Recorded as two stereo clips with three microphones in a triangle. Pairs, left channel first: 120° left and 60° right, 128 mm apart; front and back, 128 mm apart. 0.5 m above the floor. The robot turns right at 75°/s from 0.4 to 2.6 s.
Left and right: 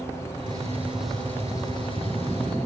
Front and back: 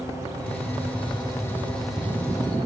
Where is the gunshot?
15° right, 0.9 m; by 2.6 s 145° left, 0.9 m.